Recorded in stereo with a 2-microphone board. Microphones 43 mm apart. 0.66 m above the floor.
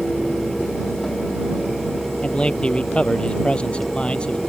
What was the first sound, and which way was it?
A man speaking, 25° left (ahead or behind).